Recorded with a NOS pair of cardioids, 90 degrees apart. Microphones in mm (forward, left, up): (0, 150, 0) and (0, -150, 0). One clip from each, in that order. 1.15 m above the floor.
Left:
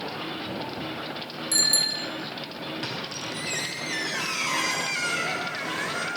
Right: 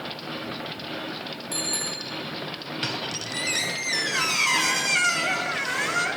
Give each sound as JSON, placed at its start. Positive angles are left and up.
{"t": 1.5, "sound": "a bicycle bell", "azimuth_deg": 60, "distance_m": 4.0}
{"t": 2.8, "sound": "a squeak", "azimuth_deg": -35, "distance_m": 3.5}